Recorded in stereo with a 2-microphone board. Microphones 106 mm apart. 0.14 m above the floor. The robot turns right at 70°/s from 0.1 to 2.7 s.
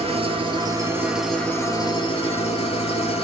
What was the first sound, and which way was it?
An engine running, 85° right.